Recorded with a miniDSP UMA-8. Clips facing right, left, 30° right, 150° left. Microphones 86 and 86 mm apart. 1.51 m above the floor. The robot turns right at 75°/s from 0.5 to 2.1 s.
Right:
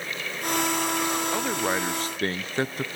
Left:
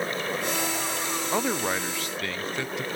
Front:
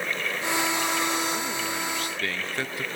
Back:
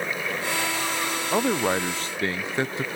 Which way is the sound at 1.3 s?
160° left.